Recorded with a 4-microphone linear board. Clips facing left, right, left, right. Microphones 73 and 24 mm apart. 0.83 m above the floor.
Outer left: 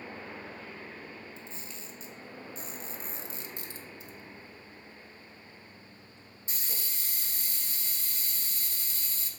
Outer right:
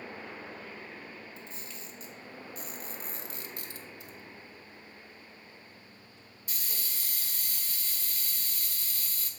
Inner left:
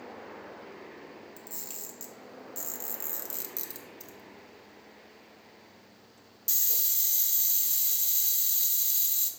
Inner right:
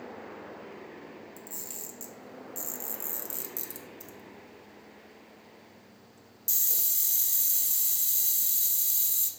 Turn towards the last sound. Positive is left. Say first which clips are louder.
# even, inner right 1 dB
turn(degrees=25)  # may be behind; listen again after turning